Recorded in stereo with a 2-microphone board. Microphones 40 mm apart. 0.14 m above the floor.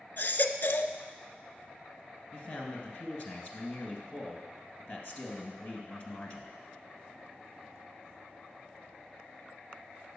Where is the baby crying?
50° left (ahead or behind), 0.5 m.